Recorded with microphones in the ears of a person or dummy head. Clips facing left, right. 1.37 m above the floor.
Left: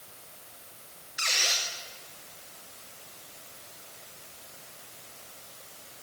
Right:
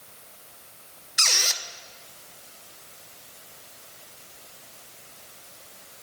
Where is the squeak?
65° right (ahead or behind), 0.6 m.